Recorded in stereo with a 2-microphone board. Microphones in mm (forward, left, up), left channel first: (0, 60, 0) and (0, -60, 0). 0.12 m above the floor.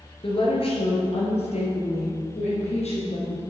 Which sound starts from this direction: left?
A woman speaking, at 0.2 s.